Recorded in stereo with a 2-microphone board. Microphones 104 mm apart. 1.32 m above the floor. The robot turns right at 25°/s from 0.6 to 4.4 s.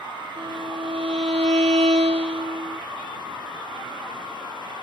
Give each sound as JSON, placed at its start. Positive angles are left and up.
{"t": 0.4, "sound": "a violin", "azimuth_deg": -120}